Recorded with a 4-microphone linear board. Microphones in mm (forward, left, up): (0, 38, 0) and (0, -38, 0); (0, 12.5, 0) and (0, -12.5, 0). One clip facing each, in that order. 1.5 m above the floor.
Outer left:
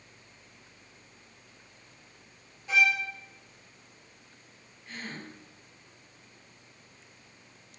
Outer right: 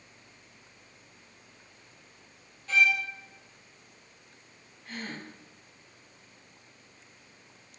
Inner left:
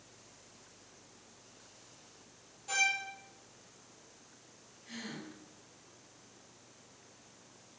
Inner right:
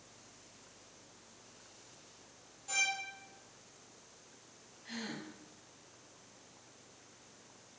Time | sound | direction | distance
2.7 | a violin | 15° left (ahead or behind) | 2 m
4.8 | a gasp | 65° right (ahead or behind) | 5 m